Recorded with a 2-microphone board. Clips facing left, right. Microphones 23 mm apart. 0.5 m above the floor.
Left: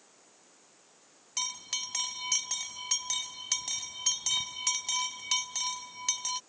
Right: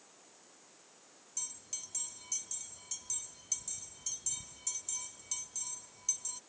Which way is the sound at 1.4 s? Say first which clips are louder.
Left 11 dB; 65° left (ahead or behind).